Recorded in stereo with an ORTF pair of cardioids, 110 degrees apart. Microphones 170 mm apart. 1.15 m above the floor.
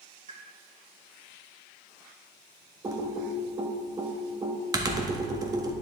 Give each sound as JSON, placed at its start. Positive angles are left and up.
{"t": 0.3, "sound": "a pop", "azimuth_deg": -40, "distance_m": 2.0}
{"t": 2.8, "sound": "typing on a keyboard", "azimuth_deg": -20, "distance_m": 1.3}